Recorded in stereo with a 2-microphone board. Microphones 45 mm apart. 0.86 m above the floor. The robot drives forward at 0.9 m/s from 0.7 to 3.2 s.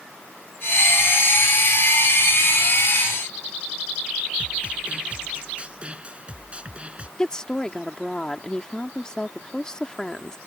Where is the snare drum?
25° right (ahead or behind).